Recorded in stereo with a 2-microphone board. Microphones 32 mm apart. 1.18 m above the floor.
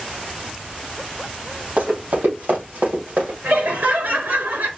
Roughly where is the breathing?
I don't hear breathing.